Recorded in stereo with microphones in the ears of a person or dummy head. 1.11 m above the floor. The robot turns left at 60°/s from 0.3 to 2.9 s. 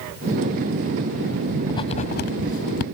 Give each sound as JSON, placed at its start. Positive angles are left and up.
{"t": 1.7, "sound": "writing", "side_deg": 25}